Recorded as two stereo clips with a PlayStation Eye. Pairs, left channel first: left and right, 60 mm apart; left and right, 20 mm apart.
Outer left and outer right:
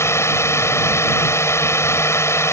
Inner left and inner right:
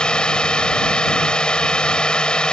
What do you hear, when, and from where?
0.0 s a drone: 50° left (ahead or behind)